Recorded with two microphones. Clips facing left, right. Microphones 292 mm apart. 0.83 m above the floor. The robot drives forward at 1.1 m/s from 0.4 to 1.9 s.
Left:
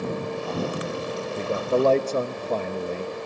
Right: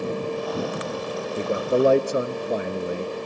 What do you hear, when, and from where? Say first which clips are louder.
1.4 s a man speaking: right 2 dB; 15° right (ahead or behind), 0.5 m